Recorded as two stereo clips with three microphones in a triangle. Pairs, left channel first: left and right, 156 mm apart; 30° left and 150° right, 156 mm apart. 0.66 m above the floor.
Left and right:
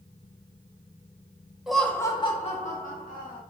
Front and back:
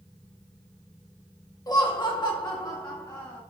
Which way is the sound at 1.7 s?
5° right.